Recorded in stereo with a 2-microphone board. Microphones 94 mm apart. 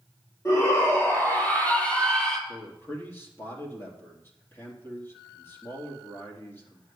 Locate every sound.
0.5 s a shout: 30° left (ahead or behind), 5.5 m; by 2.4 s 5° left (ahead or behind), 3.5 m
2.5 s a man speaking: 25° left (ahead or behind), 3 m